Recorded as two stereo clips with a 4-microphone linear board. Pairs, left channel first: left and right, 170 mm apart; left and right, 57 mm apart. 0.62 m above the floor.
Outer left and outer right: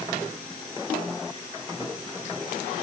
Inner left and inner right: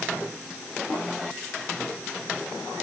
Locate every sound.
Only background noise.